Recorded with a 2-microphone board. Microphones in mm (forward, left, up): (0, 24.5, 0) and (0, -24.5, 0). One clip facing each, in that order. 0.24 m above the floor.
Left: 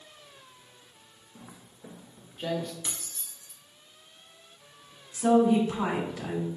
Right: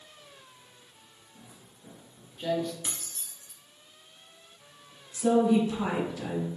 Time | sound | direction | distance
1.4 | footsteps | 75° left (ahead or behind) | 0.8 m
2.8 | keys jangling | 25° right (ahead or behind) | 1.2 m
5.1 | a woman speaking | 40° left (ahead or behind) | 1.7 m